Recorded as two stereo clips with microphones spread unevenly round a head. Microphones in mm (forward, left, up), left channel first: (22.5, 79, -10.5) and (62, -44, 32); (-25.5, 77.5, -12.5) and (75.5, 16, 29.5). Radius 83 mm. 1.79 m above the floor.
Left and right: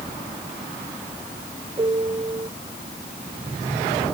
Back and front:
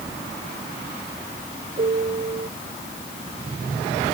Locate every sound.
1.8 s a piano: 25° right